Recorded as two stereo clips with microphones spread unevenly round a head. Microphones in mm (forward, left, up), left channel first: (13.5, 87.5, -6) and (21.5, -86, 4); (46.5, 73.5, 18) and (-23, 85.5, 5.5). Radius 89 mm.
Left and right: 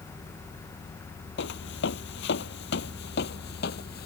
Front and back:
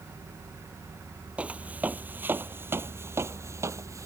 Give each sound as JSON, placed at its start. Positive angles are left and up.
{"t": 1.4, "sound": "footsteps", "azimuth_deg": 95}